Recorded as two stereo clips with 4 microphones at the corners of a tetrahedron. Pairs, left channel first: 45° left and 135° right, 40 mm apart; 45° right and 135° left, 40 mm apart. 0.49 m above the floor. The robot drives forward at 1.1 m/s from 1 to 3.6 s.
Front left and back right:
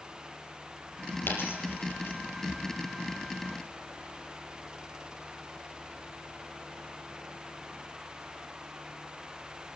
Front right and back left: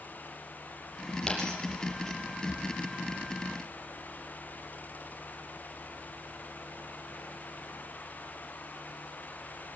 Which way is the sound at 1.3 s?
30° left.